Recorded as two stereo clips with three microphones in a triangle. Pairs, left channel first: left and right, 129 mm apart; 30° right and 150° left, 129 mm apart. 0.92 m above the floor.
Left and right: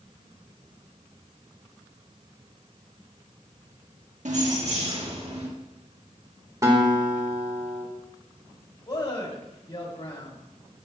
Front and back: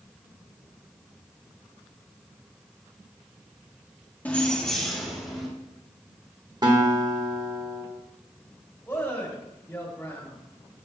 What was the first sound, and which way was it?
Keys jangling, 105° right.